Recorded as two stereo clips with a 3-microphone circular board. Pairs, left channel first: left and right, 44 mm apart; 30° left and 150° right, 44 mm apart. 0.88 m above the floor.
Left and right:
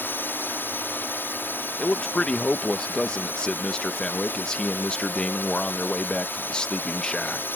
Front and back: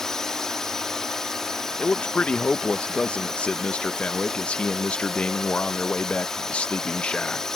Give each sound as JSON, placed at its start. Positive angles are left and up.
{"t": 0.0, "sound": "a drone", "azimuth_deg": 105}
{"t": 1.8, "sound": "a man speaking", "azimuth_deg": 45}